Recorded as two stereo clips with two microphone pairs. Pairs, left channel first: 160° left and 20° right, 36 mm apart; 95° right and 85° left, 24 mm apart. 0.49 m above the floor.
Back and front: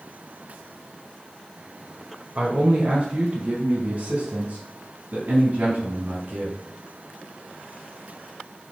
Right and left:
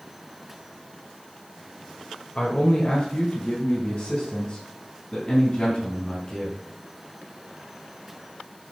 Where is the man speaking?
45° right, 1.7 m; by 6.6 s 35° right, 4 m.